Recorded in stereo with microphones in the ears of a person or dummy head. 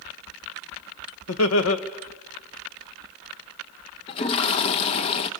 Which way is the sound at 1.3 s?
80° left.